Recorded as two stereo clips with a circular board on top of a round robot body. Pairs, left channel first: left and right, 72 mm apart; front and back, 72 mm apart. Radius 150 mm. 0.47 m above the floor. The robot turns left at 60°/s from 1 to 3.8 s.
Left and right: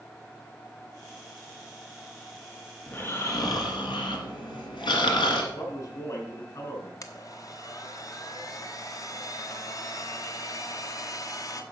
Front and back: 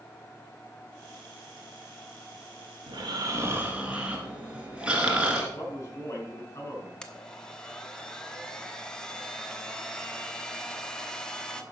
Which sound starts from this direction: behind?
Snoring, at 2.9 s.